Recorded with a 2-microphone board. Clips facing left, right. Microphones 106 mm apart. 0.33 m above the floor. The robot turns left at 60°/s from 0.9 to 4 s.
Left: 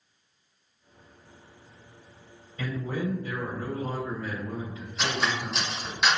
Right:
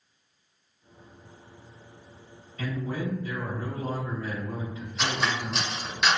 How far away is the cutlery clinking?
About 0.7 m.